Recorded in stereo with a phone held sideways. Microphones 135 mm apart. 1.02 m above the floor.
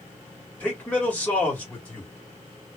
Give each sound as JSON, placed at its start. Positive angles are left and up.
{"t": 0.6, "sound": "a man speaking", "side_deg": 10, "distance_m": 1.7}